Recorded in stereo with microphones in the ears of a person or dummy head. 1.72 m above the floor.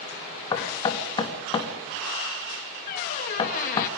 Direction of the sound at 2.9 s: 45° left (ahead or behind).